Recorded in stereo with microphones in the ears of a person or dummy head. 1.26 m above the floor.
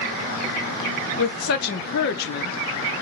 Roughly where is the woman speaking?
Left.